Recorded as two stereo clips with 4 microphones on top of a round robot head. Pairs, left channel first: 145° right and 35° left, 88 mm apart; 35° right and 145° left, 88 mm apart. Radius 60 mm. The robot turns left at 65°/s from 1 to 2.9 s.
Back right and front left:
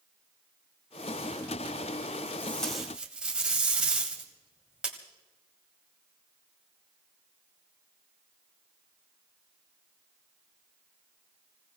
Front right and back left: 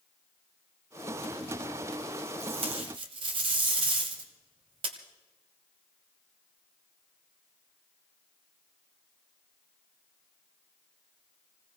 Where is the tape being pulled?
145° left, 1.9 m; by 5.0 s 115° left, 1.9 m.